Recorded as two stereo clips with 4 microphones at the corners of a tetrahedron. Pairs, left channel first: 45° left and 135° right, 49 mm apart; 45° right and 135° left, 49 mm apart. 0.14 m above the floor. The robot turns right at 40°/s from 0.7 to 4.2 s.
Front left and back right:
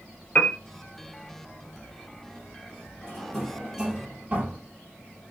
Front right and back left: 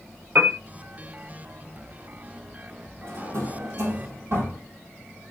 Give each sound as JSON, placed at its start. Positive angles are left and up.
{"t": 0.3, "sound": "a piano", "azimuth_deg": 100, "distance_m": 0.5}
{"t": 3.0, "sound": "a drawer", "azimuth_deg": 115, "distance_m": 2.5}